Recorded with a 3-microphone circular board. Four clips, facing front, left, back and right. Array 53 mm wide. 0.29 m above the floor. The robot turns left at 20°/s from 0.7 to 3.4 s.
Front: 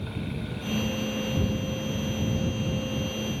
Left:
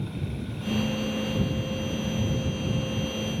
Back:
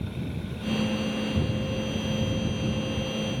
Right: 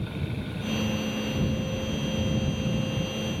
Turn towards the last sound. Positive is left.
No sound to turn to.